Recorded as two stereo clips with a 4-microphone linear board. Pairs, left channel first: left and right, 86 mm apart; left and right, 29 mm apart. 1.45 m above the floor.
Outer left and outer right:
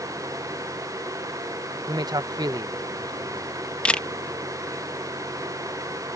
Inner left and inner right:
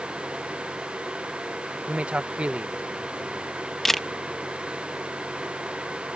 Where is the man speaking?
50° right (ahead or behind).